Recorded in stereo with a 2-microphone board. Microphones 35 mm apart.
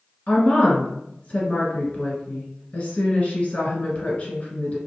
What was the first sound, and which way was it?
A woman speaking, 35° left (ahead or behind).